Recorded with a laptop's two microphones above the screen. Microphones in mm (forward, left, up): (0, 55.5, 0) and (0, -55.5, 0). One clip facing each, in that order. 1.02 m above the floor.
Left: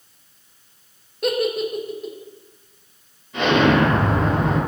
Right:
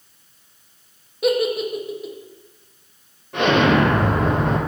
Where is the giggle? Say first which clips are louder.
Right 2 dB; 5° right (ahead or behind), 0.6 m.